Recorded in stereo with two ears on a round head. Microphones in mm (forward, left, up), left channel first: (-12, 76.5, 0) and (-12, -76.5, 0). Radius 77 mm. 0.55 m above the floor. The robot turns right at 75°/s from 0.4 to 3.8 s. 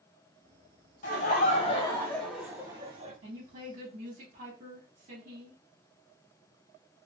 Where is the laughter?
80° left, 1.0 m; by 3.1 s 120° right, 1.0 m.